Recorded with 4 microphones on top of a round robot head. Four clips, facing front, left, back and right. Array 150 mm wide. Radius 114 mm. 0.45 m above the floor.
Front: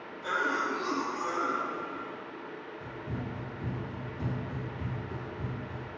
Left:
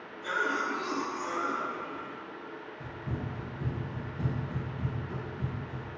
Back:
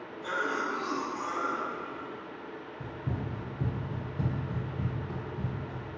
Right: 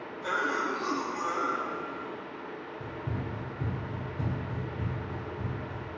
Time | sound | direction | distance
0.2 | a cough | 95° right | 1.8 m
2.8 | running footsteps | 165° right | 2.5 m